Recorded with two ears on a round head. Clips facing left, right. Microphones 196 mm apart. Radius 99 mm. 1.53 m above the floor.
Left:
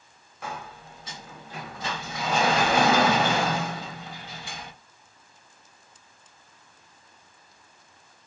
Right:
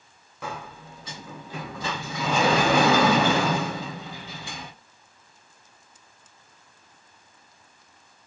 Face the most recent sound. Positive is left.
turn(degrees=-65)  # may be behind; listen again after turning